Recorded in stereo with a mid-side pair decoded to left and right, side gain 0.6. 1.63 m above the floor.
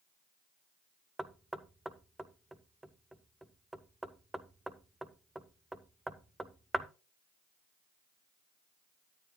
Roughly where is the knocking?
Ahead.